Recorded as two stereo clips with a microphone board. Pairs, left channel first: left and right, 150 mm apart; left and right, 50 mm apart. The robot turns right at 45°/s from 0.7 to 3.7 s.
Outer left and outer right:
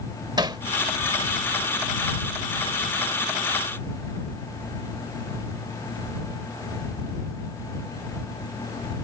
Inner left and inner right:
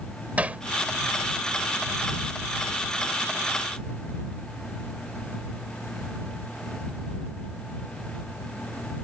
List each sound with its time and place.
0.4 s hammering: 30° right (ahead or behind)